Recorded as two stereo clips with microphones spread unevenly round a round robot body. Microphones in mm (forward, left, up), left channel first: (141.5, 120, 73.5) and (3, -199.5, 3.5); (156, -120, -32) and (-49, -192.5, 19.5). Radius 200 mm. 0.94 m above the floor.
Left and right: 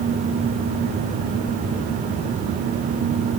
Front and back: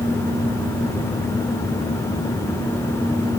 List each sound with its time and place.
Only background noise.